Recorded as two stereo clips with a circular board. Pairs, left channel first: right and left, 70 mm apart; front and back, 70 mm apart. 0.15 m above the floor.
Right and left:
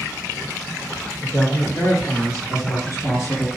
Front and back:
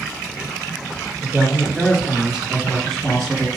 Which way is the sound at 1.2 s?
115° right.